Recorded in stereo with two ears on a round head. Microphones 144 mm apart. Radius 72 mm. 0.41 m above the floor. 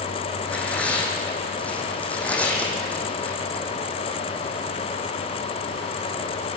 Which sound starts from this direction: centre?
Tearing paper, at 0.4 s.